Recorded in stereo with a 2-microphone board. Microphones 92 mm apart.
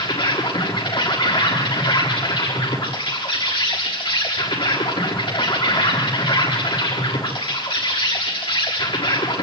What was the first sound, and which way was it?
An insect, 60° left (ahead or behind).